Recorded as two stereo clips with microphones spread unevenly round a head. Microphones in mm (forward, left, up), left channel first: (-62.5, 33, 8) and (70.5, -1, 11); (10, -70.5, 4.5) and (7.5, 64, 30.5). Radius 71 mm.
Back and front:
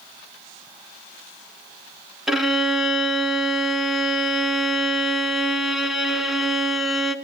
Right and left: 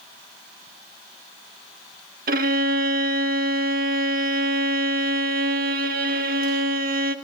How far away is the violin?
About 1.7 m.